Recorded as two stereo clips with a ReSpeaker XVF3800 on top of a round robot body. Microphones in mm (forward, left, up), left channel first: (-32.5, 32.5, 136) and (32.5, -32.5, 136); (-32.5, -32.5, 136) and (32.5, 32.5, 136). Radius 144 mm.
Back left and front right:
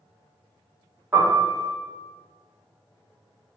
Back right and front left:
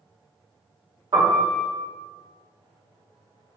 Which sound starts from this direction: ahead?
A piano, at 1.1 s.